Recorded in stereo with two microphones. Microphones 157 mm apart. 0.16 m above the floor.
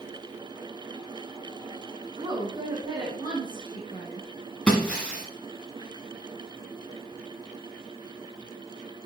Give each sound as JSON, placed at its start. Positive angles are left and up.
{"t": 2.2, "sound": "a woman speaking", "side_deg": -30, "distance_m": 1.9}
{"t": 4.7, "sound": "breaking glass", "side_deg": 5, "distance_m": 6.0}